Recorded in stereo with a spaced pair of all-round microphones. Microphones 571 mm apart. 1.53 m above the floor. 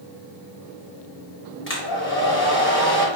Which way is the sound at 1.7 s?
20° left (ahead or behind).